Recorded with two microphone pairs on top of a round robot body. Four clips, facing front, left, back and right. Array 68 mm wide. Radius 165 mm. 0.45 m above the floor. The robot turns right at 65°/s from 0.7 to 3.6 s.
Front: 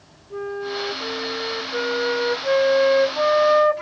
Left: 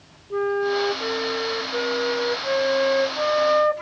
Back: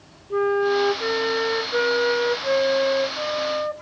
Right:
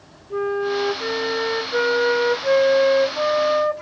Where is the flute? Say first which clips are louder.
Even, back 8 dB; 175° left; by 3.8 s 5° left.